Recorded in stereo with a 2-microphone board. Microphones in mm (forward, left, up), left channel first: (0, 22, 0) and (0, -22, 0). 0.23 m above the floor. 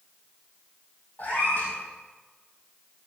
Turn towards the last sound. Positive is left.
turn(degrees=45)  # may be behind; listen again after turning